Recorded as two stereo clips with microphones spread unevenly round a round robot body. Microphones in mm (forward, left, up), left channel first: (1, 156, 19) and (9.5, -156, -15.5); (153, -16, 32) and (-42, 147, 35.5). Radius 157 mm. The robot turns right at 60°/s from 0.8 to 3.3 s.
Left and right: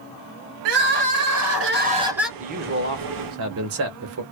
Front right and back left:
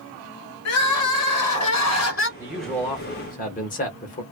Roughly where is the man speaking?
Behind right.